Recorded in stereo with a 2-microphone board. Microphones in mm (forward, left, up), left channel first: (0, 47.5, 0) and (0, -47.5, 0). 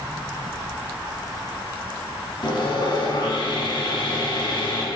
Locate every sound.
2.4 s sawing: 55° left (ahead or behind), 1.7 m